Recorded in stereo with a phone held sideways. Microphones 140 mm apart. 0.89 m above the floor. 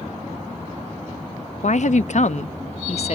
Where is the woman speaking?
60° left (ahead or behind), 0.6 m; by 3.1 s 50° left (ahead or behind), 1.3 m.